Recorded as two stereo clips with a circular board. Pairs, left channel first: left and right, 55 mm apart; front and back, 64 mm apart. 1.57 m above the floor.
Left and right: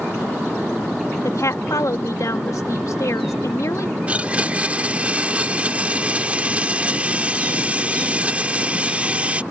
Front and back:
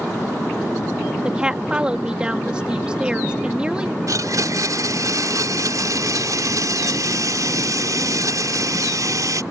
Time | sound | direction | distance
1.2 | a woman speaking | 105° left | ?
4.1 | a blender | 155° right | ?